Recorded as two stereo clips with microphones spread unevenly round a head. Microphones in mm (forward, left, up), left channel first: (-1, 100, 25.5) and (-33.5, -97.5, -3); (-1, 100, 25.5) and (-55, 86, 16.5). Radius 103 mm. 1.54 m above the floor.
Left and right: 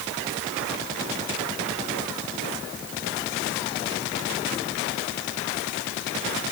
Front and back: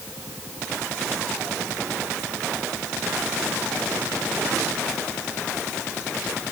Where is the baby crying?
No baby crying in this recording.